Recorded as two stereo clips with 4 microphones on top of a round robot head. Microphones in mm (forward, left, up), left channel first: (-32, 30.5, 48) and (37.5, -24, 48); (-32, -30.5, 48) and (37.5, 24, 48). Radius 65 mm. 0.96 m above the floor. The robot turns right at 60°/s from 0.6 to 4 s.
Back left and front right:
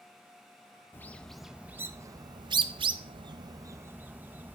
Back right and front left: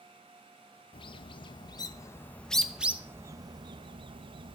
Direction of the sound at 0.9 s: 155° right.